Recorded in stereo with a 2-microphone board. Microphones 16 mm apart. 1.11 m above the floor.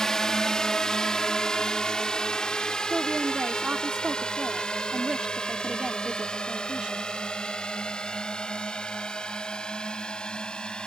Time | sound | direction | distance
0.0 | a drone | 40° left (ahead or behind) | ?
2.9 | a woman speaking | 80° right | ?